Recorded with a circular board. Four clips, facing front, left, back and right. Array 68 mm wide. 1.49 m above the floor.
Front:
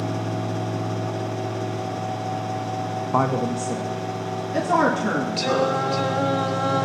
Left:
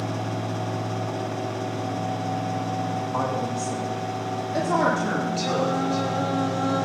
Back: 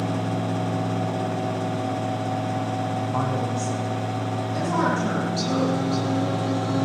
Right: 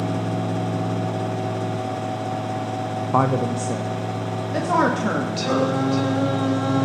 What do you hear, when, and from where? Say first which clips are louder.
3.1 s a woman speaking: right 9 dB, front 8 dB; 60° right, 0.7 m; by 5.8 s 65° right, 4 m
5.4 s singing: right 4 dB, front 3 dB; 30° right, 2.5 m